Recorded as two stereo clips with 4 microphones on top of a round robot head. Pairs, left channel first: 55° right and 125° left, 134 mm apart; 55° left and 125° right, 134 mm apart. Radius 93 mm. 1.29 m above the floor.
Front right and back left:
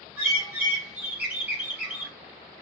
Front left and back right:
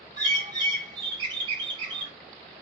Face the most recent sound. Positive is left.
turn(degrees=-165)